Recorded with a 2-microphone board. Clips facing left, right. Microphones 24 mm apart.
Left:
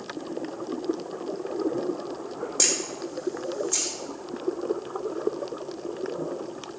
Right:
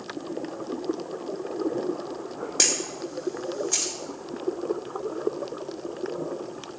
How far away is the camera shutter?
About 4.5 m.